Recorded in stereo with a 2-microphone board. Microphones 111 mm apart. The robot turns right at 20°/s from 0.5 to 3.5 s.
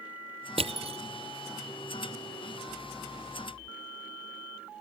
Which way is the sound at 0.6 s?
70° right (ahead or behind).